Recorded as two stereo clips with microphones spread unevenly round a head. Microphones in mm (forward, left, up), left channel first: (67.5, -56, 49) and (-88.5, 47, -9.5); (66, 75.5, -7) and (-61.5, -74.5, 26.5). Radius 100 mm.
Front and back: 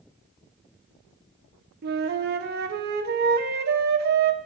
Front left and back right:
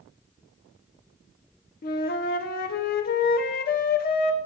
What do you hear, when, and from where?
1.8 s a flute: 100° left, 0.5 m